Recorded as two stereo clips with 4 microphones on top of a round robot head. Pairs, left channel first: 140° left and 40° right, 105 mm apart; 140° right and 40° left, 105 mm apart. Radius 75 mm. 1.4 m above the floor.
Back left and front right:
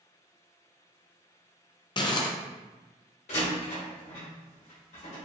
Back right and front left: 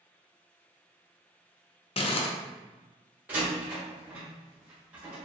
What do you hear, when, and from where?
2.0 s crumpling: 175° right, 0.6 m
3.3 s a door slam: 115° left, 1.5 m